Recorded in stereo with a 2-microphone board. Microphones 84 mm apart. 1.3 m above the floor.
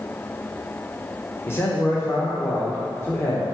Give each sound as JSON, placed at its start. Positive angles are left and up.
{"t": 1.5, "sound": "a man speaking", "side_deg": 25, "distance_m": 1.3}